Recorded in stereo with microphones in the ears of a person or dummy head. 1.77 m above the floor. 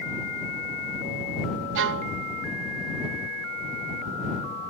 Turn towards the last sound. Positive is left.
turn(degrees=-65)  # may be behind; listen again after turning